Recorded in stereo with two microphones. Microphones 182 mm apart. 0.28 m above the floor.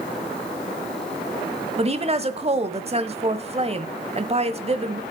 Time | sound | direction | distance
1.8 | a woman speaking | 35° right (ahead or behind) | 1.2 m